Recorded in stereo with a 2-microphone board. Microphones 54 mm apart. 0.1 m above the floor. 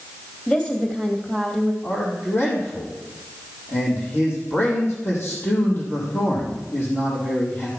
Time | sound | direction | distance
0.5 | a woman speaking | 20° left (ahead or behind) | 2.5 m
1.8 | a man speaking | 45° left (ahead or behind) | 4.5 m